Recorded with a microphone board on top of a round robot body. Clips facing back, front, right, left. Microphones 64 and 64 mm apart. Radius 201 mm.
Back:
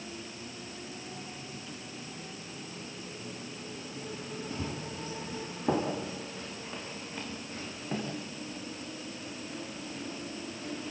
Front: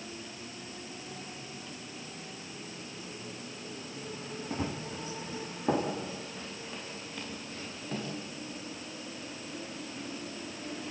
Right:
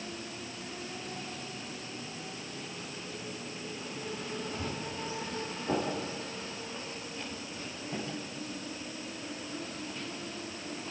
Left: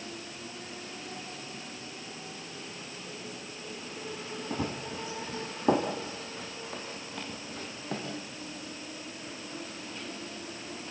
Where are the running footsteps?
60° left, 3 m; by 8.1 s 115° left, 7 m.